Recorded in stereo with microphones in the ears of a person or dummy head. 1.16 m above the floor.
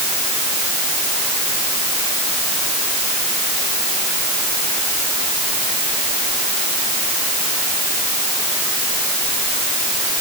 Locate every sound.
Only background noise.